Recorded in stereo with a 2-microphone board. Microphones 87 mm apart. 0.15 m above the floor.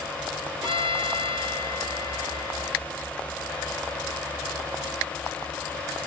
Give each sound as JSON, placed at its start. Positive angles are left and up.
{"t": 0.6, "sound": "a violin", "side_deg": -75, "distance_m": 2.0}